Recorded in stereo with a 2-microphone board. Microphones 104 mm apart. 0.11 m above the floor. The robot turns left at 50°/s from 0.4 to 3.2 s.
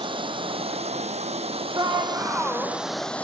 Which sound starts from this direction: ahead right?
Running water, at 0.0 s.